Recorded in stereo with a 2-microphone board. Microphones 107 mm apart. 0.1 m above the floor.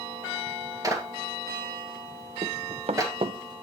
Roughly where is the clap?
Right.